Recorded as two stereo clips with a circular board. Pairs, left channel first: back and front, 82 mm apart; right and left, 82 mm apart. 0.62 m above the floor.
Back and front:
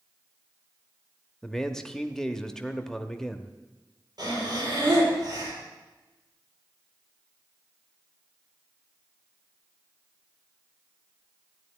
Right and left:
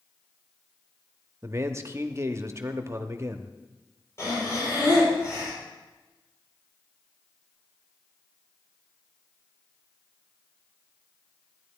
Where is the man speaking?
105° left, 0.7 m.